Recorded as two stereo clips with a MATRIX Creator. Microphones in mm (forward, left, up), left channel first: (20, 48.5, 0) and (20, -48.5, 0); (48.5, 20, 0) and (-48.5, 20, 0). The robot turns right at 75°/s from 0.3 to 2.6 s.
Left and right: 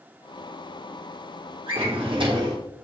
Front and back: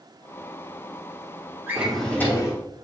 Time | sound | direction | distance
1.7 | a drawer | 110° right | 2 m